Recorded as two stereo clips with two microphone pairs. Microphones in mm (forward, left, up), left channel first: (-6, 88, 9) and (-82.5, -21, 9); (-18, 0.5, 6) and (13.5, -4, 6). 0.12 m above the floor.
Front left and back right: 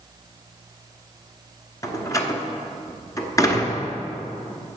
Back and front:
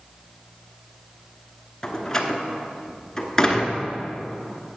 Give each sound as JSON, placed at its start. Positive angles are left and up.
{"t": 1.8, "sound": "a door slam", "azimuth_deg": 105, "distance_m": 1.0}